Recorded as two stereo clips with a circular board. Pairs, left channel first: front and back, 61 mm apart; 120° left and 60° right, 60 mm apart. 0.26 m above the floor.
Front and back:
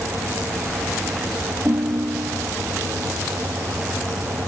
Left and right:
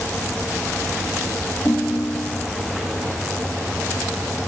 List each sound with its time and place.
1.6 s a ringtone: 125° left, 1.2 m